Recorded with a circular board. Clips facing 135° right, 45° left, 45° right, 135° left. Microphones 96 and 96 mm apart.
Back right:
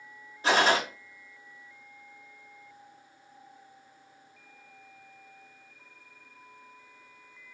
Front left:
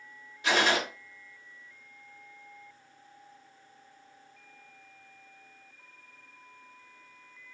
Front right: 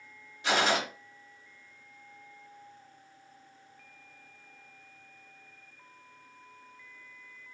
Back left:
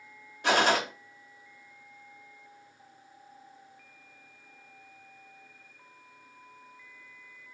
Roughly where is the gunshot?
Behind.